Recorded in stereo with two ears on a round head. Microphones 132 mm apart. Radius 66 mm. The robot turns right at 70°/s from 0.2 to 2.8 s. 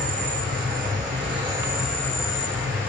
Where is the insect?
115° right, 1.3 m; by 2.9 s 65° left, 1.3 m.